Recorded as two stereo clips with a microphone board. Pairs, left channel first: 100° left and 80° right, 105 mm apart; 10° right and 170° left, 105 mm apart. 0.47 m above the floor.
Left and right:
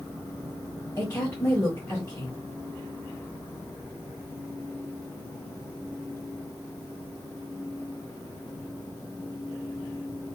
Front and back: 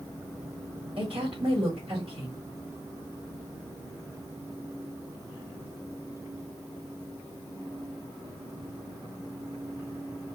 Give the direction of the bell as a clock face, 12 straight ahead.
I don't hear a bell.